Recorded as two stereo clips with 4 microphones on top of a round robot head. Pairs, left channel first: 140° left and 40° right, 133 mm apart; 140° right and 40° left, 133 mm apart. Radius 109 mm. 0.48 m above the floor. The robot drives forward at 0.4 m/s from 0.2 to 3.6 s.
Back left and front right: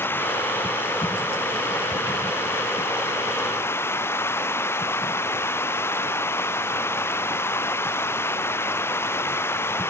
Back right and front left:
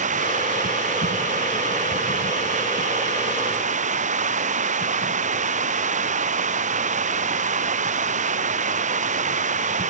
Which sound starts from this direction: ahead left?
Running water, at 0.0 s.